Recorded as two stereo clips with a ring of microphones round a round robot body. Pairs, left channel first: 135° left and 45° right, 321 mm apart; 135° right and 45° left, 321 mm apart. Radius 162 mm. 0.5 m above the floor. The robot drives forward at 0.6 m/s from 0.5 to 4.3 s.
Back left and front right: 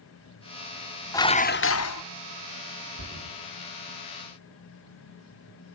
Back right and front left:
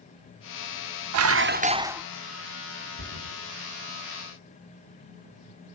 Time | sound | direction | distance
1.1 | dishes clattering | 55° left | 0.6 m
3.0 | a thud | straight ahead | 8.5 m